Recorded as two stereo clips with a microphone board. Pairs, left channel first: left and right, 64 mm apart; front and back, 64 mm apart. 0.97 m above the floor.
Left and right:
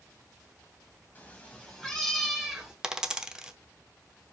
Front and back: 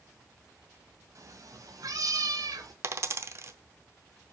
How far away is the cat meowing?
About 1.6 m.